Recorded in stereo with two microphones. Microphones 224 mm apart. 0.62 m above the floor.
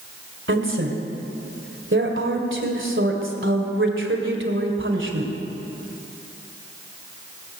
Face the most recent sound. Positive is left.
turn(degrees=-60)  # may be behind; listen again after turning